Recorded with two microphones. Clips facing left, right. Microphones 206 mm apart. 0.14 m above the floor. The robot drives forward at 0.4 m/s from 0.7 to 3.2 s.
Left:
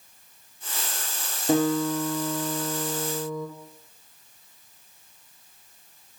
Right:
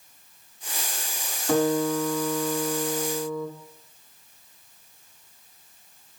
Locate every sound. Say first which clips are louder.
1.5 s a guitar: even; 20° left (ahead or behind), 1.0 m; by 3.5 s 25° left (ahead or behind), 0.9 m